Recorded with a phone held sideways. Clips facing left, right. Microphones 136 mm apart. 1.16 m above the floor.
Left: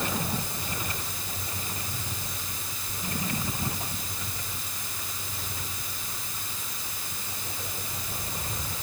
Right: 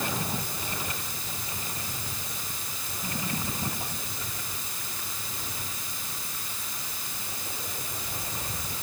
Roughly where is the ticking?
No ticking in this recording.